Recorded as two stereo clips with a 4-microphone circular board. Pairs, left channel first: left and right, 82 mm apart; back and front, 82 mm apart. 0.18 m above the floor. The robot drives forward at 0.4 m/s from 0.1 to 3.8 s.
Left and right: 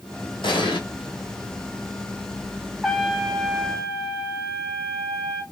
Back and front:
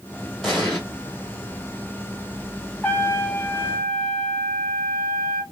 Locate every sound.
0.4 s an explosion: 95° left, 1.1 m; by 0.8 s 100° left, 1.1 m
2.8 s a trumpet: straight behind, 0.5 m